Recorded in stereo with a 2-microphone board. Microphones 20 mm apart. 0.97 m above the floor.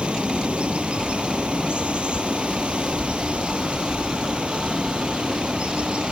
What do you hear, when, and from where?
0.0 s running water: 70° right (ahead or behind)